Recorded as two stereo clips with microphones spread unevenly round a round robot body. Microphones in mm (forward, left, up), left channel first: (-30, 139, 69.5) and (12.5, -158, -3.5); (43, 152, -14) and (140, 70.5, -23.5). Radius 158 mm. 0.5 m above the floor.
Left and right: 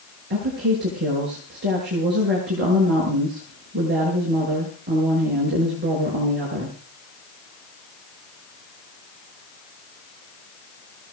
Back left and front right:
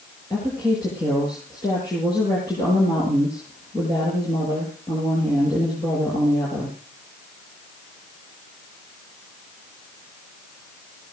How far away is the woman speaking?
About 7.5 m.